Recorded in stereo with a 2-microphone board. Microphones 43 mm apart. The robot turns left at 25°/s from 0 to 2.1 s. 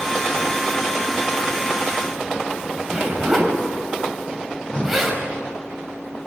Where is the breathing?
20° left (ahead or behind), 3 m.